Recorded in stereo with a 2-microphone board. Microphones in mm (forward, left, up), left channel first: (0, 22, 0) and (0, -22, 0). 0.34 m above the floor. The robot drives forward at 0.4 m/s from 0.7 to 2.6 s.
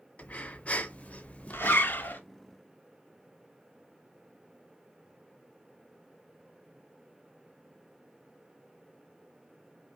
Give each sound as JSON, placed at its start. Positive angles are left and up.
{"t": 0.2, "sound": "breathing", "side_deg": 35, "distance_m": 0.6}
{"t": 1.5, "sound": "a zipper", "side_deg": 55, "distance_m": 0.7}